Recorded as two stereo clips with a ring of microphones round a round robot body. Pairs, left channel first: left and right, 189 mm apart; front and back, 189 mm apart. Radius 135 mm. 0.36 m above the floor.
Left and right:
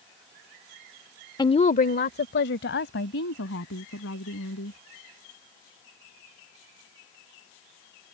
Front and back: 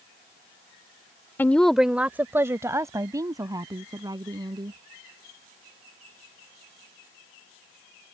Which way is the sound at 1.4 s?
65° left.